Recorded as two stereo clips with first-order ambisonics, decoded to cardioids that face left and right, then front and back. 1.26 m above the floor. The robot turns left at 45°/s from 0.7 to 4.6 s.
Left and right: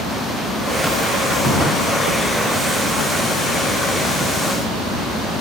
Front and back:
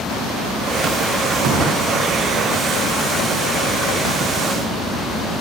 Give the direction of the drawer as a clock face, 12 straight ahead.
7 o'clock.